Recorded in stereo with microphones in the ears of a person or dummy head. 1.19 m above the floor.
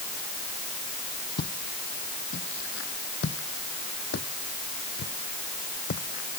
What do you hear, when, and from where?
1.4 s footsteps: 65° left (ahead or behind); by 6.4 s 45° left (ahead or behind)